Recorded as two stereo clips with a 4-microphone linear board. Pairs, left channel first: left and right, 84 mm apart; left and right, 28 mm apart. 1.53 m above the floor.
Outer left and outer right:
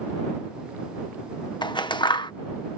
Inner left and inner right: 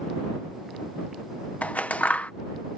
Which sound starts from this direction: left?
Scissors, at 1.6 s.